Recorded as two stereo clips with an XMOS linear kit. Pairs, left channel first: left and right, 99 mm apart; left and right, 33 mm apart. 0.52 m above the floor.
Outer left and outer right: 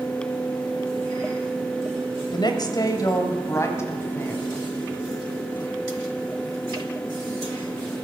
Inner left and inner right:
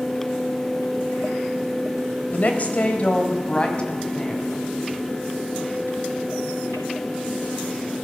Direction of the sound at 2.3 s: 50° left (ahead or behind).